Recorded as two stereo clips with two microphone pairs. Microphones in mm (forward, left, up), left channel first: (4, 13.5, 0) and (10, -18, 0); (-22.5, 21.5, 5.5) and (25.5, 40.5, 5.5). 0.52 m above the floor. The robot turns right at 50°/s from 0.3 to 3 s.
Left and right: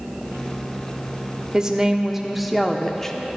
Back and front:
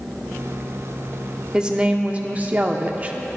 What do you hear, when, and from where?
1.5 s a woman speaking: 35° right, 0.7 m; by 3.2 s 40° left, 0.7 m